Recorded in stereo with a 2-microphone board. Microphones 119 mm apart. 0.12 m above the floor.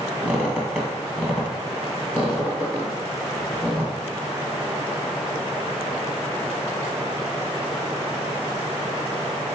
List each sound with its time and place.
0.2 s a squeak: 10° right (ahead or behind), 1.6 m